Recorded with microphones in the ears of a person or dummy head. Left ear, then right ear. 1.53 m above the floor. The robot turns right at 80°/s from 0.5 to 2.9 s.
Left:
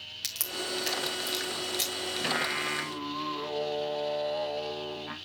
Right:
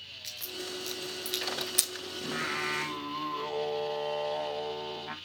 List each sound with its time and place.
0.2 s a crack: 25° left (ahead or behind), 1.9 m; by 1.9 s 50° right (ahead or behind), 1.9 m
2.2 s singing: 135° left, 1.4 m; by 5.2 s 170° right, 1.4 m